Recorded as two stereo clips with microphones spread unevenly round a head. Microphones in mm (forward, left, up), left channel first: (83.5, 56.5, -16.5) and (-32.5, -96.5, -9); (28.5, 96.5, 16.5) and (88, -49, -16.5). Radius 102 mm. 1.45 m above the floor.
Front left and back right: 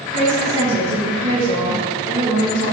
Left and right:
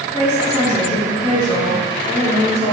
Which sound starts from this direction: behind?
A woman speaking, at 0.1 s.